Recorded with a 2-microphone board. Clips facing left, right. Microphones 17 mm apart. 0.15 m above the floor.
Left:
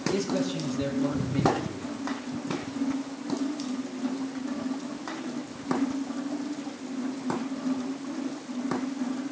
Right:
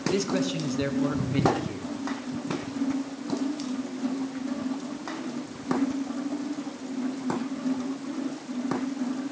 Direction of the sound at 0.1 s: 35° right (ahead or behind).